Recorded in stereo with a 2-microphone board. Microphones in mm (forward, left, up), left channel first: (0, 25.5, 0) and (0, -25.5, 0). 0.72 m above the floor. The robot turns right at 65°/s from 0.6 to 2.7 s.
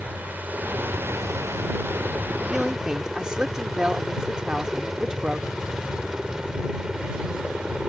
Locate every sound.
0.0 s a helicopter: 30° right (ahead or behind); by 7.9 s 15° right (ahead or behind)
2.5 s a man speaking: centre (ahead or behind); by 5.5 s 15° right (ahead or behind)